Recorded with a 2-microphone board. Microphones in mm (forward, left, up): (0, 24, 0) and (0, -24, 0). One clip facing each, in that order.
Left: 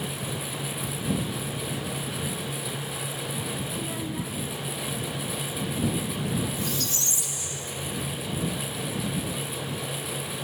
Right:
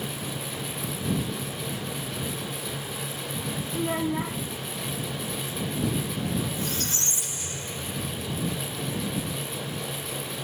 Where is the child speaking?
40° right (ahead or behind).